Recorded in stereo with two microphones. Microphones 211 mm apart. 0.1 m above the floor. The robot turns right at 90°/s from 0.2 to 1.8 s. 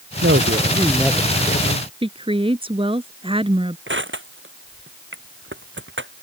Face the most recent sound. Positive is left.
turn(degrees=-65)  # may be behind; listen again after turning